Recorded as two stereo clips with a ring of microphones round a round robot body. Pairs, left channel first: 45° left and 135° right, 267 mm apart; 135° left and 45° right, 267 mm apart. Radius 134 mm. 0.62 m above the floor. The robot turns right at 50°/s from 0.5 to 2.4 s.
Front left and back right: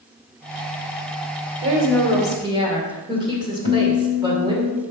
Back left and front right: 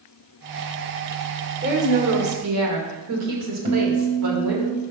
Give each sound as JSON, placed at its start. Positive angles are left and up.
{"t": 1.6, "sound": "a woman speaking", "azimuth_deg": -100, "distance_m": 2.0}
{"t": 3.6, "sound": "a guitar", "azimuth_deg": 5, "distance_m": 1.7}